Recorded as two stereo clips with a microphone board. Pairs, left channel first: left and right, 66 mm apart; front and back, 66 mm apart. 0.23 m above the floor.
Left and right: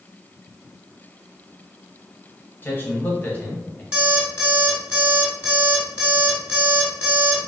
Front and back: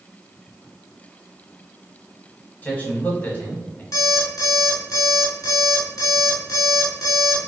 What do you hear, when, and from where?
2.6 s a man speaking: 50° left, 1.4 m
3.9 s an alarm clock: 25° right, 1.9 m